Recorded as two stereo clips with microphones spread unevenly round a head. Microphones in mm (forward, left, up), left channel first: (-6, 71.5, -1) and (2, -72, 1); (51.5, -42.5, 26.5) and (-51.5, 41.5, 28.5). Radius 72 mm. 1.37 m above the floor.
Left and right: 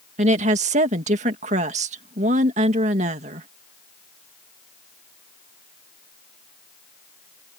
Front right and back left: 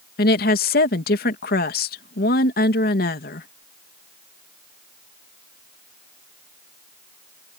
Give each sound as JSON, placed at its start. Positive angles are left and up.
{"t": 0.2, "sound": "a woman speaking", "azimuth_deg": -40}